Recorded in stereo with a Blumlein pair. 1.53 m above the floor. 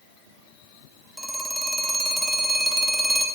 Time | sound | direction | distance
1.2 | a phone ringing | straight ahead | 2.5 m